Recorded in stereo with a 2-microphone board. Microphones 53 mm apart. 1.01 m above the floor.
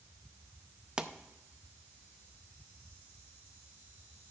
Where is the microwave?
No microwave in this recording.